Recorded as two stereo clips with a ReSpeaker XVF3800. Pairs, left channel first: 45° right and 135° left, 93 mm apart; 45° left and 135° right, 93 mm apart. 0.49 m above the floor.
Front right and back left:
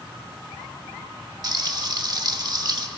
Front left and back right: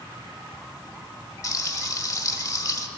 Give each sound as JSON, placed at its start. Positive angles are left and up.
{"t": 1.4, "sound": "frying", "azimuth_deg": 95, "distance_m": 0.8}